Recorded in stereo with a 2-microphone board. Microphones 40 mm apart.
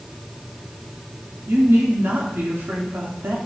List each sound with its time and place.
1.5 s a woman speaking: 70° right (ahead or behind), 3 m